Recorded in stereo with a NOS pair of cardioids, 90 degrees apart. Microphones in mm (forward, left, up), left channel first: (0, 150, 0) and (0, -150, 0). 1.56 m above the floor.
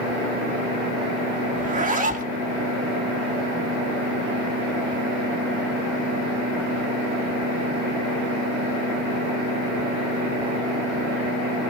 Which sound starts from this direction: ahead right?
A zipper, at 1.6 s.